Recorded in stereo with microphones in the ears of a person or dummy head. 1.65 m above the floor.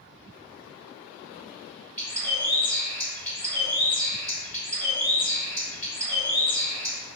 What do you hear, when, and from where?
2.0 s a bird: 15° left (ahead or behind), 1.8 m